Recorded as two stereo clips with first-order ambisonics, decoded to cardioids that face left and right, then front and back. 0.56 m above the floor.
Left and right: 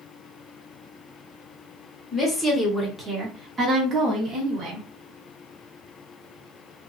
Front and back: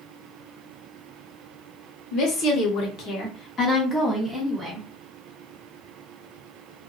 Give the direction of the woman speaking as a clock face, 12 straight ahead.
12 o'clock.